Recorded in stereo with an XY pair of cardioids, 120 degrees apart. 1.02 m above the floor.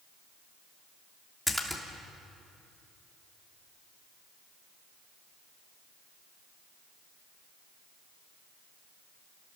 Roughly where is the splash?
Ahead.